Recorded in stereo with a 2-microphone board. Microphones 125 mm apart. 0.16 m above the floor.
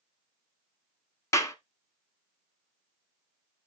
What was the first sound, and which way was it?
A clap, 25° left (ahead or behind).